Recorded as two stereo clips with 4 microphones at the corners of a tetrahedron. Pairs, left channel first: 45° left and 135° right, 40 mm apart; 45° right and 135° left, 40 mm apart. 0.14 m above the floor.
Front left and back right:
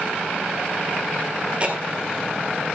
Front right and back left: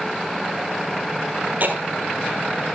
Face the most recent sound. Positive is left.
turn(degrees=170)